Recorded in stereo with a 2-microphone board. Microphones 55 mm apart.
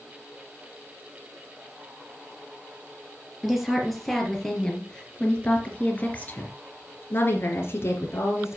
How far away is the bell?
No bell in this recording.